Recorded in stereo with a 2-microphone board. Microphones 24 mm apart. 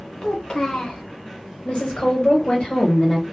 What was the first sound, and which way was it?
A child speaking, 45° left (ahead or behind).